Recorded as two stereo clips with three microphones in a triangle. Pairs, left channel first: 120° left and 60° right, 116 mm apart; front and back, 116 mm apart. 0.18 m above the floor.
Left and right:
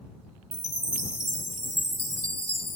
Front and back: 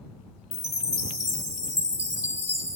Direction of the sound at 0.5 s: 155° left.